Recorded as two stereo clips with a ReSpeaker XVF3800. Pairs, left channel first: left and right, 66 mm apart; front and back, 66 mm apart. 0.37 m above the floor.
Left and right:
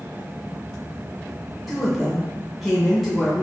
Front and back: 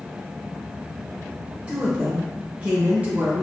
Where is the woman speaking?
Straight behind, 0.8 m.